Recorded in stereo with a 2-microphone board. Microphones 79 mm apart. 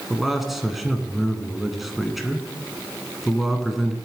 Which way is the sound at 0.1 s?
Centre (ahead or behind).